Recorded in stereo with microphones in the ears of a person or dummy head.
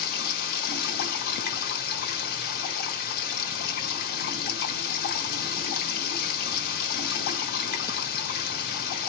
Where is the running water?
55° left (ahead or behind), 1.2 m.